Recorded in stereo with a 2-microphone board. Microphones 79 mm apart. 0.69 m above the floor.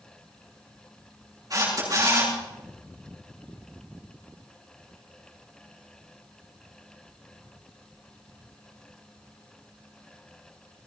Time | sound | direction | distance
1.5 | a camera shutter | 50° right (ahead or behind) | 8.5 m